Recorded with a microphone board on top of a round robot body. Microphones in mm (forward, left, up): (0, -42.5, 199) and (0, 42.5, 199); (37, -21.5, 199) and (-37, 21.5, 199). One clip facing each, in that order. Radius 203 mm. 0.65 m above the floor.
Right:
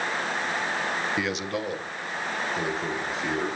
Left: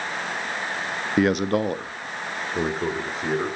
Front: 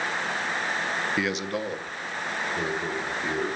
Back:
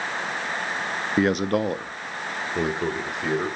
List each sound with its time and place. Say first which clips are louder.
1.2 s a man speaking: left 8 dB, back 7 dB; 115° left, 0.8 m; by 3.5 s 135° left, 3.5 m